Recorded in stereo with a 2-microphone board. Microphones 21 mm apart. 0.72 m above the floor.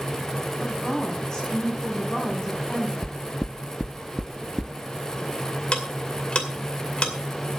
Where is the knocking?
65° left (ahead or behind), 0.6 m.